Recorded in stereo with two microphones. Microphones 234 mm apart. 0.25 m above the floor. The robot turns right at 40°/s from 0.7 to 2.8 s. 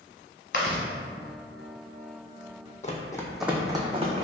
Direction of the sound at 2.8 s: 35° left (ahead or behind).